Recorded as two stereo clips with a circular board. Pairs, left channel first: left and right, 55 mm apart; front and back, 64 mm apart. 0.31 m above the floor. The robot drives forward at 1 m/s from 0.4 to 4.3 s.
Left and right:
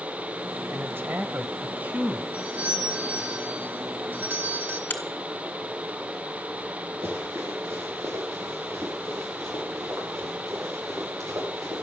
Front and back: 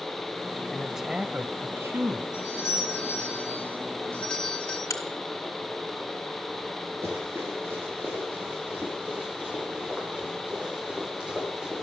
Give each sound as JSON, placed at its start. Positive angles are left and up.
{"t": 0.7, "sound": "a man speaking", "azimuth_deg": -80, "distance_m": 1.2}
{"t": 2.3, "sound": "a doorbell", "azimuth_deg": -30, "distance_m": 3.5}
{"t": 4.9, "sound": "a crack", "azimuth_deg": 35, "distance_m": 2.0}
{"t": 7.0, "sound": "running footsteps", "azimuth_deg": -130, "distance_m": 6.0}